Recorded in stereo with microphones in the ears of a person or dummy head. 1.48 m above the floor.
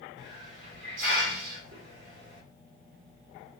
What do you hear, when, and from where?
0.2 s a hiss: 50° right (ahead or behind), 2 m